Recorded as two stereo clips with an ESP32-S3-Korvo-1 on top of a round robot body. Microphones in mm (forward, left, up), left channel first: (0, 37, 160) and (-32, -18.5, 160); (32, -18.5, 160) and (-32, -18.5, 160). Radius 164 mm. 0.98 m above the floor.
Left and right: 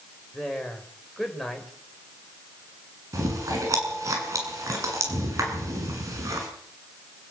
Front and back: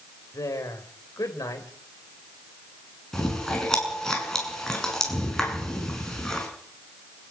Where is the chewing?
80° right, 7 m.